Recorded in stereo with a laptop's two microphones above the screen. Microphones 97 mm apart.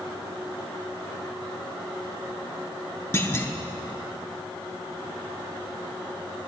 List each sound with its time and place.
3.1 s a clunk: 25° left (ahead or behind), 0.5 m